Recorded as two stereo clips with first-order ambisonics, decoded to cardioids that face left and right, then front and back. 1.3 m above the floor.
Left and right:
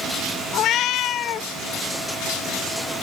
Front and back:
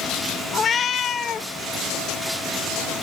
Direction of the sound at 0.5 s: 55° left.